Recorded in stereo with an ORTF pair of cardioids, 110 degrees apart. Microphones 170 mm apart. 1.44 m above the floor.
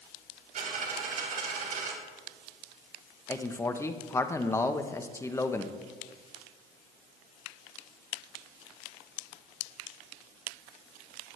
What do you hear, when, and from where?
0.6 s a dropped coin: 50° right, 3.5 m
3.3 s a man speaking: 15° left, 1.0 m